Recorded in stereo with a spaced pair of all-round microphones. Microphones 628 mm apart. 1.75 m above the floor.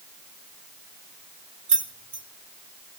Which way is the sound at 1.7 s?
65° right (ahead or behind).